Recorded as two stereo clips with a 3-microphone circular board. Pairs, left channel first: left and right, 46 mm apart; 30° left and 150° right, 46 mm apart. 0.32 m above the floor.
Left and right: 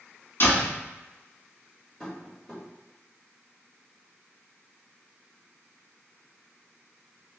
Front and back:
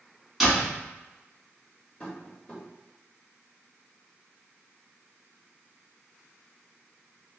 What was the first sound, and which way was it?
A door slam, 125° left.